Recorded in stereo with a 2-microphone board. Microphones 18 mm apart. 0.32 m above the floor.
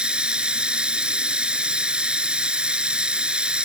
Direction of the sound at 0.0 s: 55° right (ahead or behind).